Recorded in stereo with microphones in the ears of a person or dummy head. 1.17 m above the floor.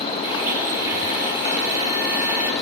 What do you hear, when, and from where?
0.2 s a blender: 20° right (ahead or behind), 9 m